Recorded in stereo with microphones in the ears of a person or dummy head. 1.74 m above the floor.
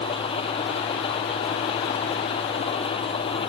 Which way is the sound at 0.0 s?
25° left (ahead or behind).